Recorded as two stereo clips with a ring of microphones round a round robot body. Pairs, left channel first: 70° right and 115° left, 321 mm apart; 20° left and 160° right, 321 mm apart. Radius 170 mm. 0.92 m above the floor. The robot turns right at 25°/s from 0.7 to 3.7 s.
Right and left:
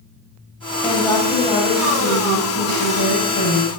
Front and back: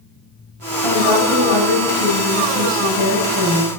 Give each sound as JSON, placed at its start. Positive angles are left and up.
{"t": 0.8, "sound": "a woman speaking", "azimuth_deg": -155, "distance_m": 6.5}